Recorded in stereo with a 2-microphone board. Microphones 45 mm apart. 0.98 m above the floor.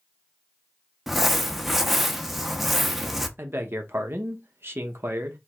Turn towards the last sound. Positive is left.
turn(degrees=-60)  # may be behind; listen again after turning